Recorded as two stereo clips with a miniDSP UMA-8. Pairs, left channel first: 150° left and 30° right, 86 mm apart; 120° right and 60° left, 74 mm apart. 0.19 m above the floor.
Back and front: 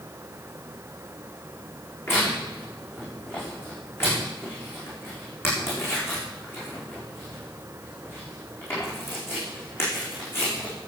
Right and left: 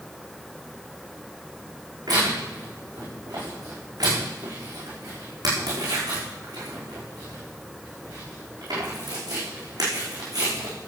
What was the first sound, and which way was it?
Tearing paper, 90° left.